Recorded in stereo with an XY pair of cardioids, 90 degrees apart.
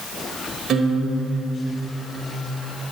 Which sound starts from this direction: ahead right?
A guitar, at 0.7 s.